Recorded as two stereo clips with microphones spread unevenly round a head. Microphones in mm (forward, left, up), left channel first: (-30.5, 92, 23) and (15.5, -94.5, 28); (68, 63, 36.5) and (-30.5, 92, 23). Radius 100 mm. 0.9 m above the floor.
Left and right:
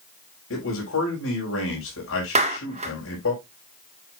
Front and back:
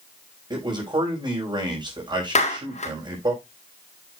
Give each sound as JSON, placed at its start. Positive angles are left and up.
{"t": 0.5, "sound": "a man speaking", "azimuth_deg": 115, "distance_m": 5.0}
{"t": 2.4, "sound": "a clap", "azimuth_deg": -15, "distance_m": 1.7}